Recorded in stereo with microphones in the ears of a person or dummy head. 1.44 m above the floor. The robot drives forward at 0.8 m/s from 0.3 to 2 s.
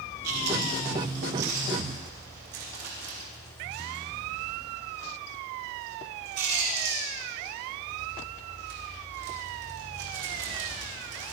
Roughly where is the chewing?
Right.